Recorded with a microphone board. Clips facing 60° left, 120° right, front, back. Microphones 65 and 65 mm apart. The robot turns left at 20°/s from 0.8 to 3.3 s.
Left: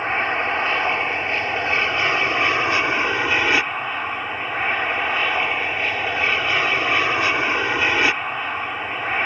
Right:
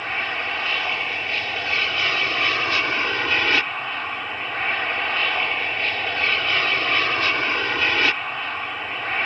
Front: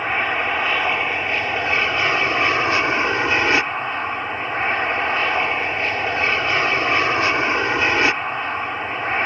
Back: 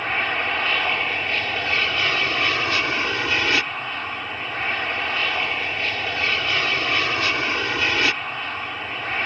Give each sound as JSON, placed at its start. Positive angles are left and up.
{"t": 0.0, "sound": "an aircraft", "azimuth_deg": 50}